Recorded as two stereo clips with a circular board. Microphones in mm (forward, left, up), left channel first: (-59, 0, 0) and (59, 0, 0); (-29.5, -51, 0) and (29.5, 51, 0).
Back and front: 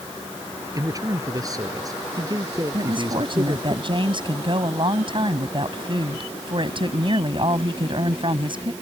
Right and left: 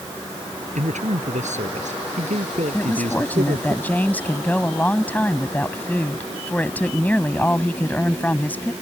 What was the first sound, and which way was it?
A man speaking, 60° left.